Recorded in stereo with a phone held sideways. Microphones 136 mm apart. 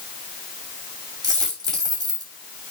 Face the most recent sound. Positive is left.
turn(degrees=-30)  # may be behind; listen again after turning